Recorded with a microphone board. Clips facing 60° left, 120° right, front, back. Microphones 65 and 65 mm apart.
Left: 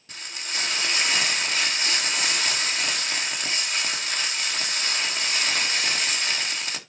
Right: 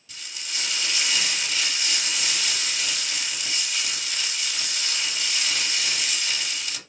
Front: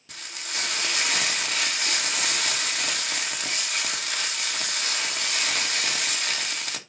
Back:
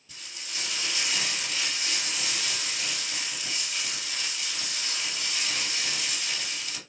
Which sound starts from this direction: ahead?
Frying, at 0.1 s.